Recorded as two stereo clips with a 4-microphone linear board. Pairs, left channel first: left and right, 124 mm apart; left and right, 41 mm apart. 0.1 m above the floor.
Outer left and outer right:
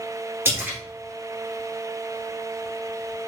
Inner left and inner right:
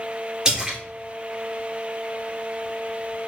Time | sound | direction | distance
0.5 | a splash | 20° right (ahead or behind) | 2 m